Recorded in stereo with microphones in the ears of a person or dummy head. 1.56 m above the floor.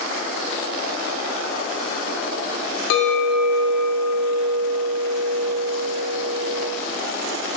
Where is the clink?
60° left (ahead or behind), 0.7 m.